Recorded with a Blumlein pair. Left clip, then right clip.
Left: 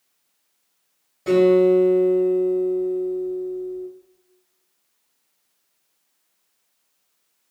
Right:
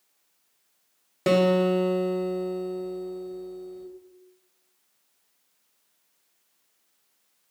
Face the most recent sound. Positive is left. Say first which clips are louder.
# left 6 dB
turn(degrees=-35)